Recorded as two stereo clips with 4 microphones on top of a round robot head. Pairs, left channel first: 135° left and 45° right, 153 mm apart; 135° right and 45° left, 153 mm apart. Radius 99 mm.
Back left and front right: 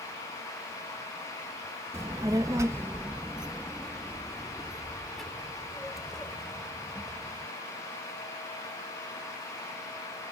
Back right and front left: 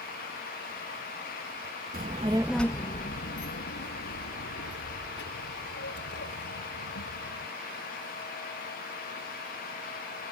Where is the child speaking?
25° left; by 7.5 s 140° right.